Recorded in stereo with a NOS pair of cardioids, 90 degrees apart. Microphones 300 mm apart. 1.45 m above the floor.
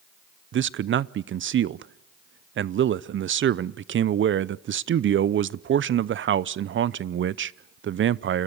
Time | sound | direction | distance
0.5 | a man speaking | 40° right | 0.6 m